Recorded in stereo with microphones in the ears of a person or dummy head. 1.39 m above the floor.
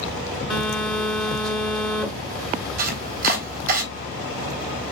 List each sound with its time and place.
0.5 s a phone buzzing: centre (ahead or behind), 1.5 m
2.8 s chopping: 55° right (ahead or behind), 3.5 m